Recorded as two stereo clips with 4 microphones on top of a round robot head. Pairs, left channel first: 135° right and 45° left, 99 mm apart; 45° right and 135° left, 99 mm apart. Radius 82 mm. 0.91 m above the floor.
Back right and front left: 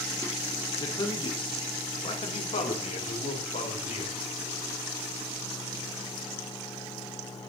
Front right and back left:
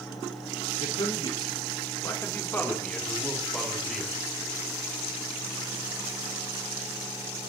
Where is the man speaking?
80° right, 2 m; by 4.2 s 135° right, 3.5 m.